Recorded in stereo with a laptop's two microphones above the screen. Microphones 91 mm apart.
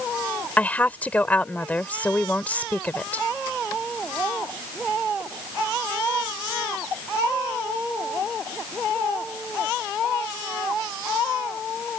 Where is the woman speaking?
20° left (ahead or behind).